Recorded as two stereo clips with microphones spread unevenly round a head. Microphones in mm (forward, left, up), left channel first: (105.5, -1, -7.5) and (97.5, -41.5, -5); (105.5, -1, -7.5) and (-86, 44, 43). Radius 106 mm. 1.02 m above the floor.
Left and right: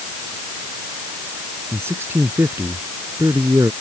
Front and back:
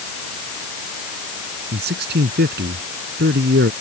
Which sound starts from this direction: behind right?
A man speaking, at 1.7 s.